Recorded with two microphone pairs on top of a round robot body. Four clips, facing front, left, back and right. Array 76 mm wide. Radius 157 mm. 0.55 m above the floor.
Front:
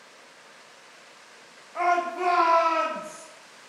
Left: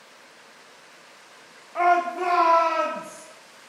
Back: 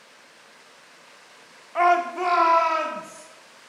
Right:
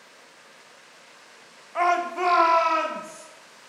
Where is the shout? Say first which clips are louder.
Left 2 dB, back 4 dB; 145° right, 1.0 m; by 3.2 s 110° right, 2.5 m.